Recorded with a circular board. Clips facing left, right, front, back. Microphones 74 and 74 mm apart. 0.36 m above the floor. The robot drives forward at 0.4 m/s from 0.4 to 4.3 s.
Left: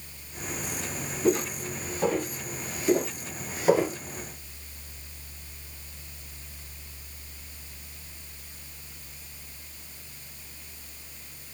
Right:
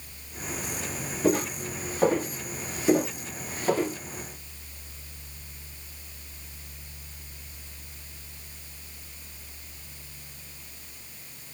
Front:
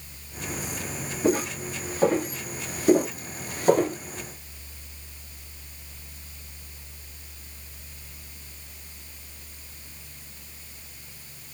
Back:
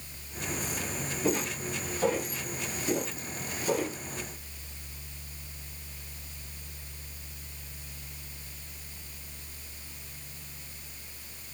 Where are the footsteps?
50° right, 1.6 m; by 4.0 s 30° left, 0.6 m.